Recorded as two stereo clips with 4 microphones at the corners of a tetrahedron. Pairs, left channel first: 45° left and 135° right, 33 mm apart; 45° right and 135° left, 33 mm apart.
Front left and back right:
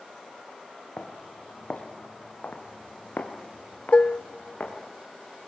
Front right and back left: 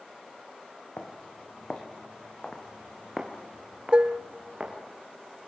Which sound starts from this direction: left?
Dishes clattering, at 3.9 s.